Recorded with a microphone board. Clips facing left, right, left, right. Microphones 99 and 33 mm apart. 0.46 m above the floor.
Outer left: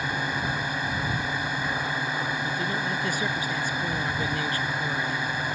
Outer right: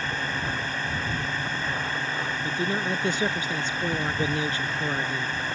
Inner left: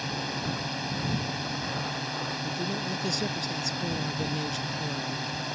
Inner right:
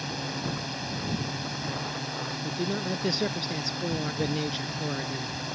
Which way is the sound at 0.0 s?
10° left (ahead or behind).